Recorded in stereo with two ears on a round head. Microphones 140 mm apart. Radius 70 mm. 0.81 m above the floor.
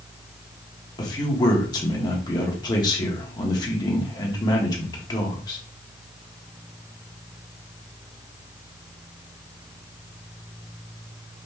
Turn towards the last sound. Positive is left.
turn(degrees=25)  # may be behind; listen again after turning